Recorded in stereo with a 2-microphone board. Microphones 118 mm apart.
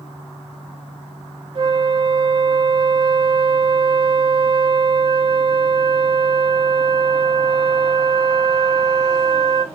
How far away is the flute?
About 0.5 m.